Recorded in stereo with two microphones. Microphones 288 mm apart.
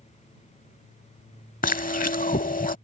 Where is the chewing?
30° left (ahead or behind).